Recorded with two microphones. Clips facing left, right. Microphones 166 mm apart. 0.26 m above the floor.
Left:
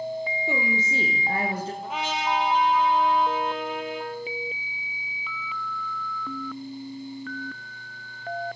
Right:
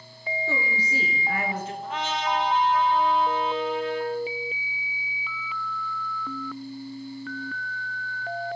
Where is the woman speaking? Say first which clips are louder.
Left 2 dB; 15° left (ahead or behind), 4.5 m; by 1.7 s 40° left (ahead or behind), 4.5 m.